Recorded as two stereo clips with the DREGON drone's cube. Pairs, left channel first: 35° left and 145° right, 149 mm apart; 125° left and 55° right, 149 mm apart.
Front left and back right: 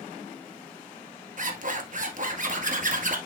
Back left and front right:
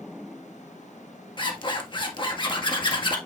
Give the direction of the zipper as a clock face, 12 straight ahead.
6 o'clock.